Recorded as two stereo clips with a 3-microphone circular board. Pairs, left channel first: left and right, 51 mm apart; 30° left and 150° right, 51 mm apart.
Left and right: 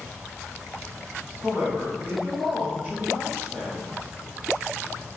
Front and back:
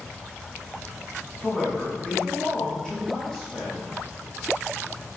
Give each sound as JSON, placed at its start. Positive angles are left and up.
{"t": 1.4, "sound": "a man speaking", "azimuth_deg": -45, "distance_m": 1.1}